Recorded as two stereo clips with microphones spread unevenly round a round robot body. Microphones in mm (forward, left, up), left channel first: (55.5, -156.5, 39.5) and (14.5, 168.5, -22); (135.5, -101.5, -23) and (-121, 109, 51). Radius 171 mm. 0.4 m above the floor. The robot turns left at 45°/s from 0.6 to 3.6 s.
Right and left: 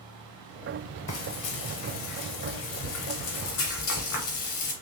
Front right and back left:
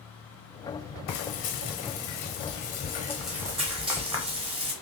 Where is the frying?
25° right, 0.9 m; by 4.7 s 140° right, 0.9 m.